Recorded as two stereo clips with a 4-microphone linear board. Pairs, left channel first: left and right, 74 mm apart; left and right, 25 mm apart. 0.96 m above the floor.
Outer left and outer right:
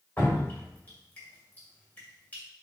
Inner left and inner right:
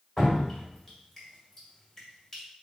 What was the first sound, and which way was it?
Dripping, 25° left (ahead or behind).